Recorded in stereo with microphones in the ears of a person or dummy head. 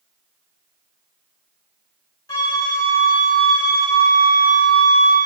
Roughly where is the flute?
Centre.